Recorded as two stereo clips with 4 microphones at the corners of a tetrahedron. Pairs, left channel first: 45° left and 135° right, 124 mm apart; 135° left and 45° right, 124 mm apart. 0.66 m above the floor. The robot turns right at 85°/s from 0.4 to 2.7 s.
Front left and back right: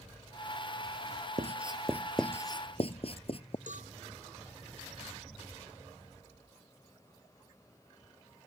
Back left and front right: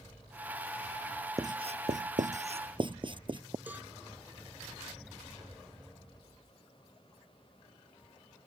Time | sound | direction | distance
1.4 | writing | 110° right | ?
3.7 | a cowbell | 120° right | ?